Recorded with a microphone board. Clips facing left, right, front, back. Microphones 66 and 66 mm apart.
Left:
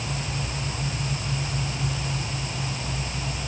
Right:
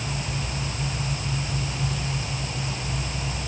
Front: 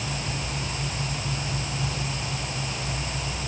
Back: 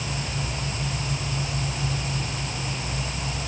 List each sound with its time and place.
Only background noise.